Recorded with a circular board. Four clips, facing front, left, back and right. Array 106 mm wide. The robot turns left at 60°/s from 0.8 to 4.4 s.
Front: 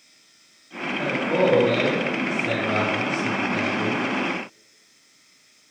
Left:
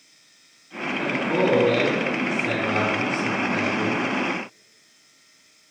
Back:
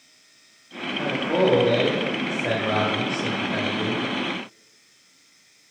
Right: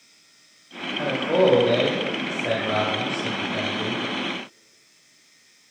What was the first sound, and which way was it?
A man speaking, 55° right.